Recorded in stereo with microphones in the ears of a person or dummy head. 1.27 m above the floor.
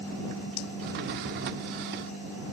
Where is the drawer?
55° right (ahead or behind).